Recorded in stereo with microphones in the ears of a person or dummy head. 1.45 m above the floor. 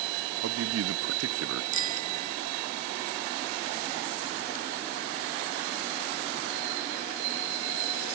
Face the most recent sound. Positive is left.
turn(degrees=-40)  # may be behind; listen again after turning